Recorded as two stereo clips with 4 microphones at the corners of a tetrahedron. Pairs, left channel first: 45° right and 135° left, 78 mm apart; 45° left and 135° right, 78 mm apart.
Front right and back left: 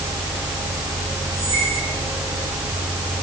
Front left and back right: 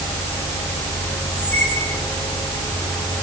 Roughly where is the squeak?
Ahead right.